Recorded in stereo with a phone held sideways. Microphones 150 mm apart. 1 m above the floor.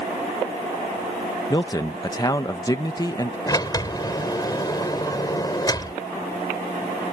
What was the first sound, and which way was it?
A man speaking, 25° left (ahead or behind).